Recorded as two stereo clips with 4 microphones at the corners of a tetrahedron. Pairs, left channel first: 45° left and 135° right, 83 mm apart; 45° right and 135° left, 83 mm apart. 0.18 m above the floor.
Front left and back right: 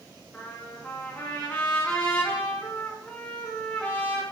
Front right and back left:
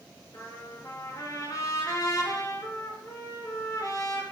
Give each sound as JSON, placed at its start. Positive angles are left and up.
{"t": 0.3, "sound": "a trumpet", "azimuth_deg": -25, "distance_m": 2.5}